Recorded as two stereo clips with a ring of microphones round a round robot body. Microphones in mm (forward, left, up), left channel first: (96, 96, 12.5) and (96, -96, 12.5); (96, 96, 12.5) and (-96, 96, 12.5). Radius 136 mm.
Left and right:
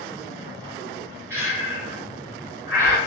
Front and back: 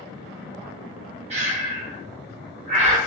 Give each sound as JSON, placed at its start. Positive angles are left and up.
{"t": 1.3, "sound": "breathing", "azimuth_deg": -160, "distance_m": 0.6}